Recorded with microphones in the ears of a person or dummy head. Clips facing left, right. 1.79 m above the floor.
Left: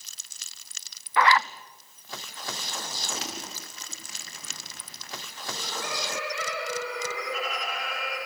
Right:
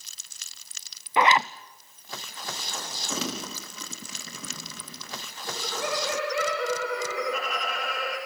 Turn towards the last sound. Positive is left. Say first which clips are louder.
# right 4 dB
turn(degrees=-50)  # may be behind; listen again after turning